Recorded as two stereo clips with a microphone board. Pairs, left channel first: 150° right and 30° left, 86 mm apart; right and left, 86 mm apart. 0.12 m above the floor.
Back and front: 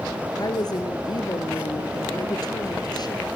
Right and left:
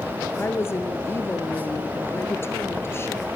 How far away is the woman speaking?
About 2.5 m.